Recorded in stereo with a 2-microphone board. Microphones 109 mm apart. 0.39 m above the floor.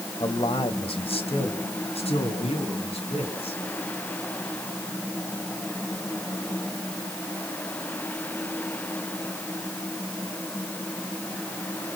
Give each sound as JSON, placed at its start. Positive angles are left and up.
{"t": 0.2, "sound": "a man speaking", "side_deg": 45, "distance_m": 2.0}